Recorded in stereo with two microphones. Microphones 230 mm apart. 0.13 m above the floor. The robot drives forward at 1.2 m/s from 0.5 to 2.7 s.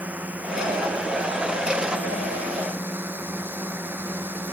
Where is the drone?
5° right (ahead or behind); by 4.5 s 10° right (ahead or behind).